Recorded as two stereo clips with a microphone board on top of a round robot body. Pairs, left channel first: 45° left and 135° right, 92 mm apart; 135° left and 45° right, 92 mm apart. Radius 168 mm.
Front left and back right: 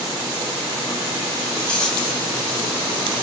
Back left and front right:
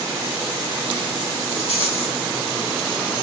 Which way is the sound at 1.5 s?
125° left.